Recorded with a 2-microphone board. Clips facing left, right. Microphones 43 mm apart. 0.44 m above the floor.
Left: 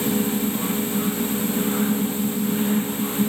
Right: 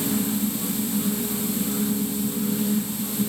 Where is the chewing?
No chewing in this recording.